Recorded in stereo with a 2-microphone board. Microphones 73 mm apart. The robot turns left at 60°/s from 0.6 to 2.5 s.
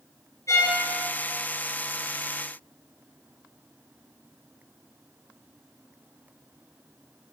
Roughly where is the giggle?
No giggle in this recording.